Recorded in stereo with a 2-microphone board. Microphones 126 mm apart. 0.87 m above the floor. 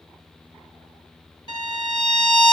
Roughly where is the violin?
Left.